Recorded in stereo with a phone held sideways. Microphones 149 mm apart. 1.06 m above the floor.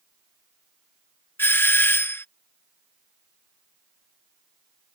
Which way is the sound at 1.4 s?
15° left (ahead or behind).